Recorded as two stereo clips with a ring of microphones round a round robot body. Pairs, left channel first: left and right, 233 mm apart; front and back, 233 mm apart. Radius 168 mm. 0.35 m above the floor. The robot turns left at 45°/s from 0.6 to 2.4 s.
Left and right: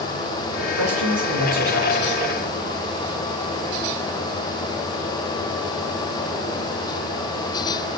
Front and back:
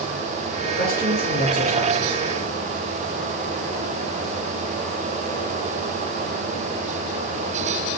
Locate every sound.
0.7 s a man speaking: 70° right, 5 m; by 2.2 s 135° right, 5 m